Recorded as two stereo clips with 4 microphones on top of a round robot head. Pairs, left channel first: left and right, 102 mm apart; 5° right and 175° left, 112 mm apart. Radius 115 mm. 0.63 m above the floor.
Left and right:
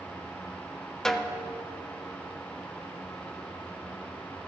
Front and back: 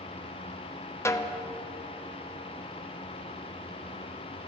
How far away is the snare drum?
About 1.0 m.